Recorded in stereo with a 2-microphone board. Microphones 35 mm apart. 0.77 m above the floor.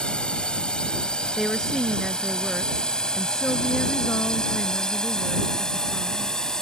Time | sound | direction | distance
0.0 | a drone | 25° left (ahead or behind) | ?
1.4 | a woman speaking | 5° left (ahead or behind) | ?